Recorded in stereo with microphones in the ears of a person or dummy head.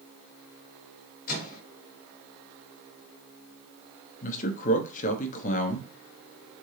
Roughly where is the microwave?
Left.